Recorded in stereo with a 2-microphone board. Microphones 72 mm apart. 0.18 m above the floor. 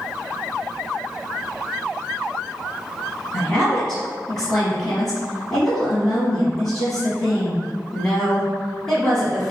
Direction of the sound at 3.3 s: 5° left (ahead or behind).